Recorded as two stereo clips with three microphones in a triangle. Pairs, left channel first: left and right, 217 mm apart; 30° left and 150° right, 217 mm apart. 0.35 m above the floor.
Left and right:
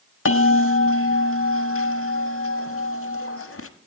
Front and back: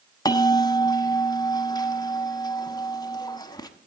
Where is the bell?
100° left, 0.6 m.